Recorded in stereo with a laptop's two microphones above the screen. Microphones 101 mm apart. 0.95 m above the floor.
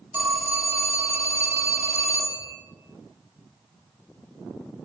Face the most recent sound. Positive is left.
turn(degrees=-15)  # may be behind; listen again after turning